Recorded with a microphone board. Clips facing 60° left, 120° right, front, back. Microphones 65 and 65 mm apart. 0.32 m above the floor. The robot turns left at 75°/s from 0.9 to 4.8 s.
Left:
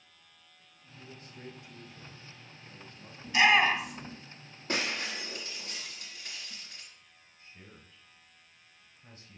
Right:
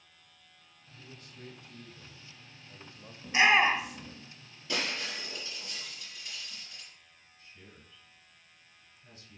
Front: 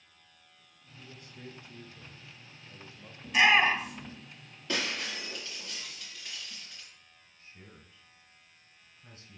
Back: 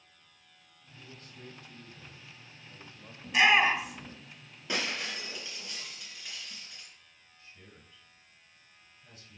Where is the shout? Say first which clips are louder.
Even, even; 85° right, 1.4 m; by 4.2 s 155° right, 1.4 m.